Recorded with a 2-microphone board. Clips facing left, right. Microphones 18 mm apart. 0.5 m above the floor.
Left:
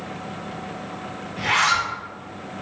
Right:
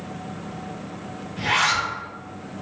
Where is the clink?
No clink in this recording.